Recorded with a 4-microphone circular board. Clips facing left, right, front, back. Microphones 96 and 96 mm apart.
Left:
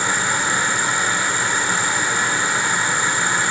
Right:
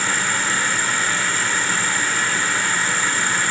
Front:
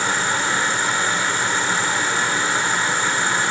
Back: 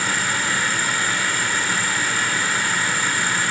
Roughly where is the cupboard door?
I don't hear a cupboard door.